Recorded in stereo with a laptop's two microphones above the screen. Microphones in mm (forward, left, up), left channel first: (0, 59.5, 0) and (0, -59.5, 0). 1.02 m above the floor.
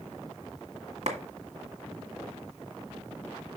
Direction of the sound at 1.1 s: 65° right (ahead or behind).